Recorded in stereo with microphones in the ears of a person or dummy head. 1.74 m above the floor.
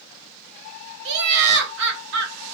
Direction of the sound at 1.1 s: 65° right (ahead or behind).